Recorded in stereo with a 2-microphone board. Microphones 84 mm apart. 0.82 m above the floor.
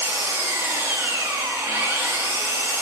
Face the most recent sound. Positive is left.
turn(degrees=-30)  # may be behind; listen again after turning